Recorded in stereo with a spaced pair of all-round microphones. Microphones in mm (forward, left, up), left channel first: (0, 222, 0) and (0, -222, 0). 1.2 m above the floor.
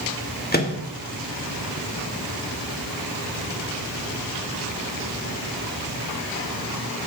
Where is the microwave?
20° left (ahead or behind), 1.4 m.